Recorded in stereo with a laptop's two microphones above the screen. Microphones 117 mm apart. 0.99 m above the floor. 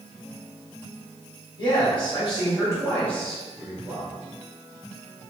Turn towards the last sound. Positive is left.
turn(degrees=-25)  # may be behind; listen again after turning